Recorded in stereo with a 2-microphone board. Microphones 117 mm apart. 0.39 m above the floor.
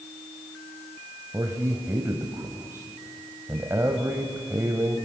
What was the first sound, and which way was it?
A man speaking, 20° right (ahead or behind).